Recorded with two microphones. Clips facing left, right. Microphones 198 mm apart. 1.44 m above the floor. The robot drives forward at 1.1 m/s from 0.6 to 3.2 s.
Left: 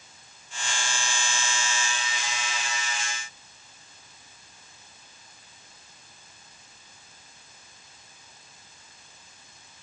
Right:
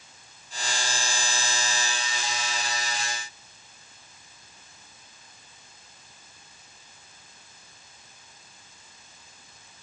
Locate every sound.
Only background noise.